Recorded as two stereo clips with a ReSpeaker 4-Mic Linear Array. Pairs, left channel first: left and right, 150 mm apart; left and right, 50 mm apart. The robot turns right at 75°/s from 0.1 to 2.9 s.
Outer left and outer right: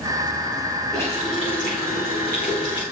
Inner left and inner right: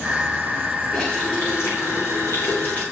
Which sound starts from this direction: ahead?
A running tap, at 0.9 s.